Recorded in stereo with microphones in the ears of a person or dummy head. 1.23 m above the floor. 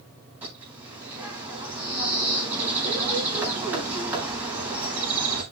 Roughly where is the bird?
Centre.